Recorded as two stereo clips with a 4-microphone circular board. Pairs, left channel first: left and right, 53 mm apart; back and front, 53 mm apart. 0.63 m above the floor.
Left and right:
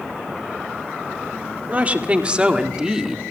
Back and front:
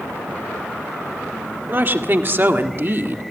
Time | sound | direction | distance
1.7 | a woman speaking | 35° right | 2.0 m